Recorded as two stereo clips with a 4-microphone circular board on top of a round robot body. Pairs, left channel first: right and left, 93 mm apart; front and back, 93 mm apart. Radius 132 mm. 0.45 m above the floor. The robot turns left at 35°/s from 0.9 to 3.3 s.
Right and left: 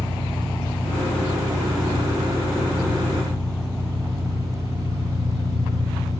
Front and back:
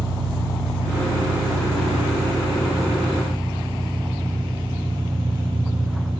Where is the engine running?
130° right, 5 m; by 6.2 s 145° left, 5 m.